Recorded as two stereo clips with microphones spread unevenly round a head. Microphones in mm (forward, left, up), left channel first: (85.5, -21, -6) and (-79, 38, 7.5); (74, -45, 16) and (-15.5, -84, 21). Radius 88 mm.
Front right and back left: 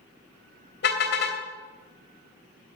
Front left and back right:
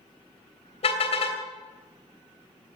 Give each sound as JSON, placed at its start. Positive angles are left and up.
{"t": 0.8, "sound": "a car horn", "azimuth_deg": 10, "distance_m": 2.5}